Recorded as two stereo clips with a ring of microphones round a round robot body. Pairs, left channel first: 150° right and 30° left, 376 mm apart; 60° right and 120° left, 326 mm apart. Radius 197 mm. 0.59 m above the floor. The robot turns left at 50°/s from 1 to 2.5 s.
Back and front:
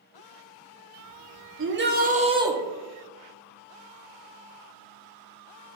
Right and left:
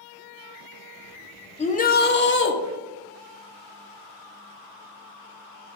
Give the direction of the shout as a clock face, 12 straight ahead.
12 o'clock.